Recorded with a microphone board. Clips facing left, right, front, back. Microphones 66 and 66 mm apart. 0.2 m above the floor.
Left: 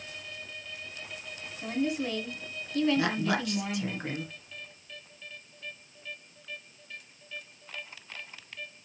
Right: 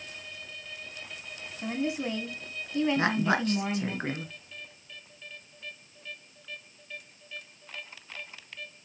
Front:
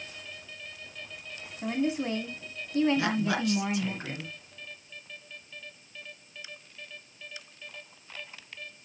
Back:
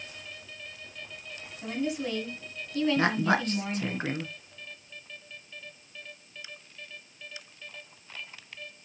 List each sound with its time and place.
1.6 s a woman speaking: 35° right, 1.6 m
3.0 s a woman speaking: 140° right, 2.5 m